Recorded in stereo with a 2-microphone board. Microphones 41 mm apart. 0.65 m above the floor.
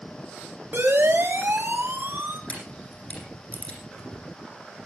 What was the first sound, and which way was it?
A siren, 60° right (ahead or behind).